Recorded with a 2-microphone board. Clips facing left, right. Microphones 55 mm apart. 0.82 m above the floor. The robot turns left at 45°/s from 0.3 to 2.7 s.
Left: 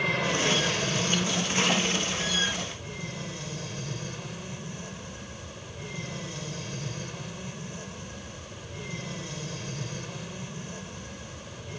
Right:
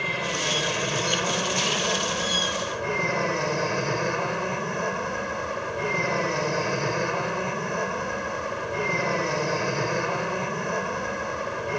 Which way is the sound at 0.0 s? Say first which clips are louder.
Left 1 dB; straight ahead.